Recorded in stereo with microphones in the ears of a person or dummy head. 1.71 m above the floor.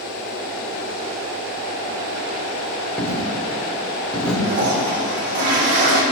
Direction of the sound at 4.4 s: 60° right (ahead or behind).